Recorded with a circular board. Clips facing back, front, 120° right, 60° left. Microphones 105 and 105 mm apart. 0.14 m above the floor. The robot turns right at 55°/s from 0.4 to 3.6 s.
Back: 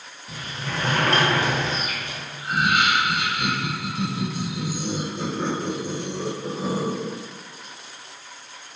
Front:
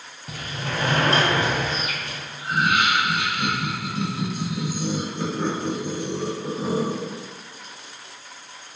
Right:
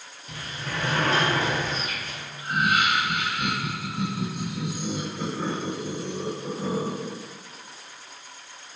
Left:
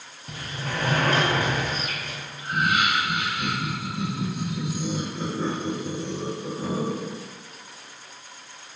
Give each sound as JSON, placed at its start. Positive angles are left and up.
{"t": 0.3, "sound": "a sliding door", "azimuth_deg": 15, "distance_m": 0.6}
{"t": 2.4, "sound": "laughter", "azimuth_deg": -55, "distance_m": 2.0}